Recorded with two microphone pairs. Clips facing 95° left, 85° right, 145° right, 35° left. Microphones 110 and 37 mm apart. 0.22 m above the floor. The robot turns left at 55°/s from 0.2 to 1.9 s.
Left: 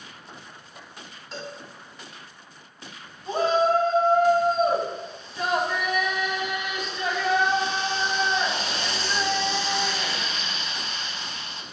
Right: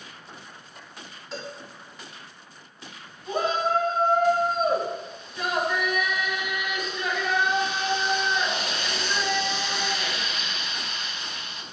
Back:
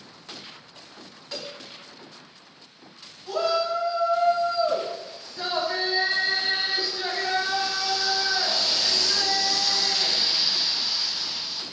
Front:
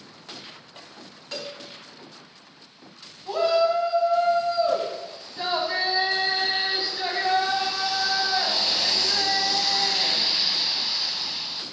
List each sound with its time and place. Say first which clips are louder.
1.3 s a cowbell: even, front 2 dB; 5° left, 1.5 m; by 1.5 s 10° right, 1.5 m
3.3 s a shout: left 4 dB, front 3 dB; 70° left, 1.6 m